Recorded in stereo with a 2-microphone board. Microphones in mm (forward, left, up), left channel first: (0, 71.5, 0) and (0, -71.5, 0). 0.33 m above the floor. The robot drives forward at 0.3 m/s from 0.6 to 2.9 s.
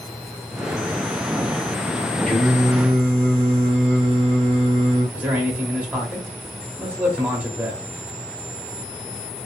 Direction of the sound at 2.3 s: 5° left (ahead or behind).